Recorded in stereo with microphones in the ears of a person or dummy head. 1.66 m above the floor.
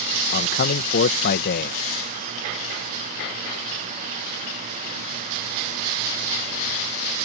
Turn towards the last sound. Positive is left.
turn(degrees=50)  # may be behind; listen again after turning